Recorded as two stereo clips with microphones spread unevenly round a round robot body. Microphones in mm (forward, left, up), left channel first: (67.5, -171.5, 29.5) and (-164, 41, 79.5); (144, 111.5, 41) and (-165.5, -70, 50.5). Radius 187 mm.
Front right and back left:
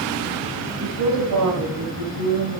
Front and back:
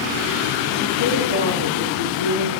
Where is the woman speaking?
155° left, 4.5 m; by 2.6 s 165° left, 6 m.